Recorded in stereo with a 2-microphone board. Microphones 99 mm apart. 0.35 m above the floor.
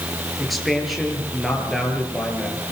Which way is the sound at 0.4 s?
Centre (ahead or behind).